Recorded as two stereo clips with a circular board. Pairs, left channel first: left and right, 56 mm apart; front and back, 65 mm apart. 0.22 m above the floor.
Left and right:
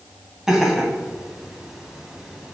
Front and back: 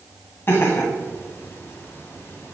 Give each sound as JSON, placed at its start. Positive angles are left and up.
{"t": 0.5, "sound": "laughter", "azimuth_deg": -20, "distance_m": 1.8}